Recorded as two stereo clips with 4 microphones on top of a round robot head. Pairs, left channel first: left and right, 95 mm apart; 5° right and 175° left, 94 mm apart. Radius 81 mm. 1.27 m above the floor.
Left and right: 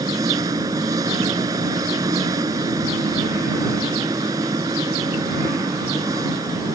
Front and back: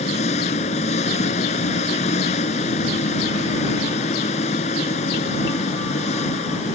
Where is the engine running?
25° right.